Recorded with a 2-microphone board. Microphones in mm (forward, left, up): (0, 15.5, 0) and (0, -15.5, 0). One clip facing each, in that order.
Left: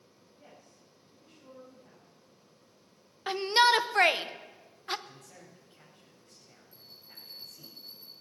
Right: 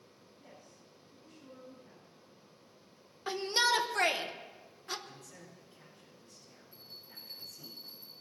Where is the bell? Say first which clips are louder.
Right 1 dB; 80° left, 5 m.